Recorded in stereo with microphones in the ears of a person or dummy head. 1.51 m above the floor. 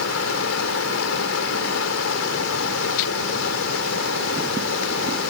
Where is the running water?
80° left.